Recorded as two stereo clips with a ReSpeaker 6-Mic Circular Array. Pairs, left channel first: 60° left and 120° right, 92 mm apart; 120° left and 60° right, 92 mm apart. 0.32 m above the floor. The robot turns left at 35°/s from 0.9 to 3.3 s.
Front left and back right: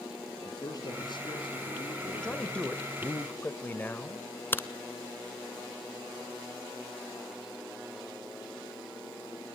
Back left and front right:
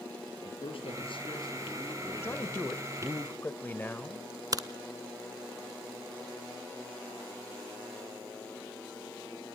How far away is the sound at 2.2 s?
About 1.3 m.